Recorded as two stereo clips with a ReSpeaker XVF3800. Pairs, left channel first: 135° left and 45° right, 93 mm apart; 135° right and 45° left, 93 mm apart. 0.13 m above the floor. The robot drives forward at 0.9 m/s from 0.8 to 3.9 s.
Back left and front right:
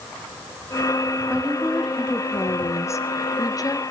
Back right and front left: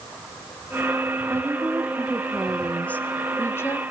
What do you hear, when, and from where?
1.3 s a woman speaking: 20° left, 1.3 m; by 3.8 s 170° left, 2.0 m